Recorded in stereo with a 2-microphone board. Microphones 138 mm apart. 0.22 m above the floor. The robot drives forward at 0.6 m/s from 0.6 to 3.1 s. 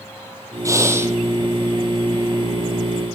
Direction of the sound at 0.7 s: 20° right (ahead or behind).